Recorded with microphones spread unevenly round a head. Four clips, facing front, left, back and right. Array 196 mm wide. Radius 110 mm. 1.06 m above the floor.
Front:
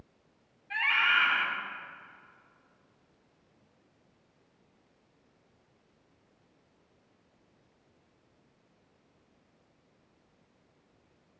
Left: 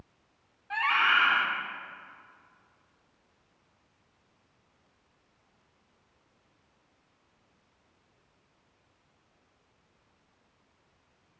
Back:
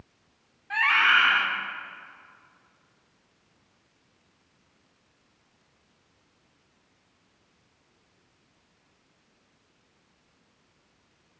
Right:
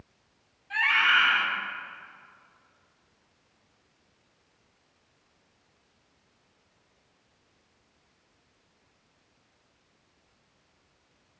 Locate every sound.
0.7 s a scream: 150° left, 2.5 m